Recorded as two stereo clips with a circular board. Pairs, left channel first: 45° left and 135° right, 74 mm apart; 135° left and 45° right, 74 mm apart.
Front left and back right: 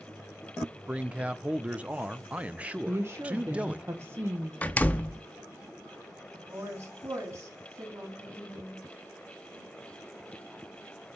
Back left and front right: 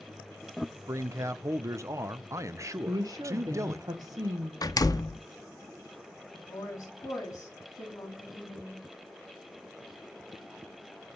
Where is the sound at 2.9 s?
80° right, 1.1 m.